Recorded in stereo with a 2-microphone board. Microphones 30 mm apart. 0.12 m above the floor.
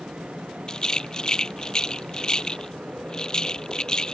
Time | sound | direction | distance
0.7 | a rattle | 25° left (ahead or behind) | ?